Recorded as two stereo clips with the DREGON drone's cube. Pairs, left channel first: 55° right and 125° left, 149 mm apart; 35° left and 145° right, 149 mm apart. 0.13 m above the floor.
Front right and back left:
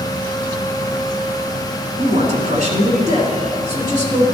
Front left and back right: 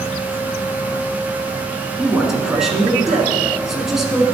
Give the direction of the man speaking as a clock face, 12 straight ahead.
8 o'clock.